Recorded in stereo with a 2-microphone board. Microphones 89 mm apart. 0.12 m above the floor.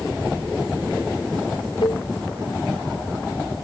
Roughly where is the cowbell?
Left.